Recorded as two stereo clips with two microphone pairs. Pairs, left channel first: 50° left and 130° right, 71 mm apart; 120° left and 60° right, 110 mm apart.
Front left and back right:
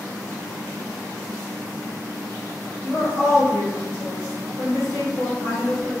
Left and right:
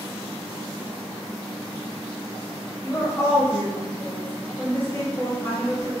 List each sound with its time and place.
2.8 s a woman speaking: 60° left, 1.3 m